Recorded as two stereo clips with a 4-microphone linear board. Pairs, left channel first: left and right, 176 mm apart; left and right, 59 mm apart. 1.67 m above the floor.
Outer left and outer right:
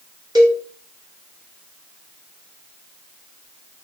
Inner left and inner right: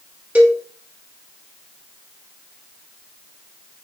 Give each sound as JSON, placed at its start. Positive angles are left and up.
{"t": 0.3, "sound": "a cowbell", "side_deg": -25, "distance_m": 5.0}